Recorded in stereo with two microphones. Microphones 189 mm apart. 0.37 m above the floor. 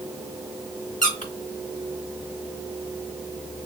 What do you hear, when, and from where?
1.0 s a squeak: 45° left (ahead or behind), 0.7 m